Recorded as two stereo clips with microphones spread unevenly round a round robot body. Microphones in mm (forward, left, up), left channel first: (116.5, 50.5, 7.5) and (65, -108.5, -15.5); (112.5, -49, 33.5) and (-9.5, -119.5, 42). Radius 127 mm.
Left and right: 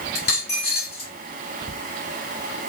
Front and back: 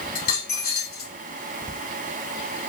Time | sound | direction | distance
0.1 | a dropped coin | 50° left | 1.7 m